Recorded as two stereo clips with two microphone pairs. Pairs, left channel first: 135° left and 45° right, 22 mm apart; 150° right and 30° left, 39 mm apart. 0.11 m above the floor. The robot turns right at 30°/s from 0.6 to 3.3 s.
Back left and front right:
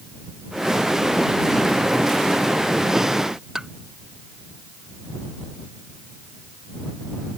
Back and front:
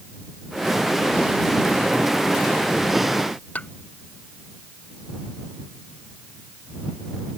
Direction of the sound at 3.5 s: 110° right.